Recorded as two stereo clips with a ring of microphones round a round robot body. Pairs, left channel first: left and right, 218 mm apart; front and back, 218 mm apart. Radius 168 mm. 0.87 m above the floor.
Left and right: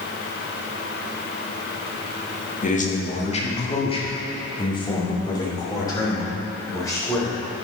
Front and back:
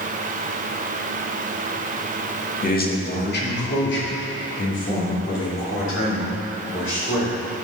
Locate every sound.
2.6 s a man speaking: 45° left, 1.9 m; by 7.3 s 15° left, 5 m